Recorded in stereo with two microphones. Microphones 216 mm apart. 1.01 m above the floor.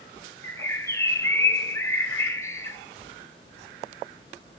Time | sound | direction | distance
0.4 | a bird | 15° left (ahead or behind) | 2.5 m